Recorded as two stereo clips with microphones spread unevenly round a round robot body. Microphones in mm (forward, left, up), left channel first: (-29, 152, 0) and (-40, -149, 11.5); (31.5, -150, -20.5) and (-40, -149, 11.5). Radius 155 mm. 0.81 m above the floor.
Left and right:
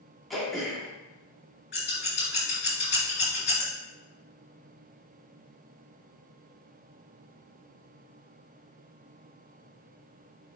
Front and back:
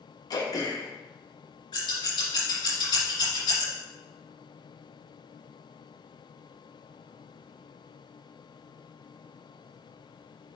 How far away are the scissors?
About 3.5 m.